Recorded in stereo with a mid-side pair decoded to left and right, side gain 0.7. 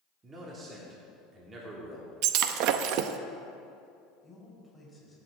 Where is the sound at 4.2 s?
10° left, 4 m.